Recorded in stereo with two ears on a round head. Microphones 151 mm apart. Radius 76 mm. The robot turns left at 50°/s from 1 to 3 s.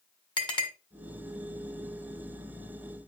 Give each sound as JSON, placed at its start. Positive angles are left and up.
{"t": 0.4, "sound": "a clink", "side_deg": 30, "distance_m": 1.9}